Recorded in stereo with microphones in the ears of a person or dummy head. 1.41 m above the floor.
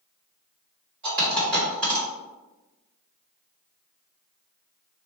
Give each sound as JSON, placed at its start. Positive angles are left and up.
{"t": 1.0, "sound": "a dropped coin", "side_deg": -55, "distance_m": 2.0}